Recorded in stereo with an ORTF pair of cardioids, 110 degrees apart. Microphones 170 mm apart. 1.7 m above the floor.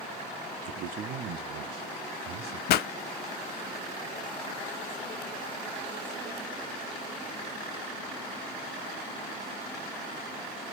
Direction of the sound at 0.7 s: 50° right.